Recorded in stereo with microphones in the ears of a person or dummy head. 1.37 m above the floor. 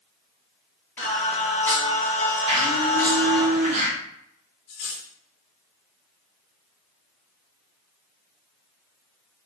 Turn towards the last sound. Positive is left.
turn(degrees=55)  # may be behind; listen again after turning